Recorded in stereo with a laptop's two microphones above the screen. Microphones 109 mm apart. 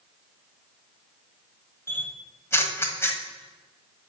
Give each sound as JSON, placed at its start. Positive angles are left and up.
{"t": 1.9, "sound": "a camera shutter", "side_deg": 25, "distance_m": 1.5}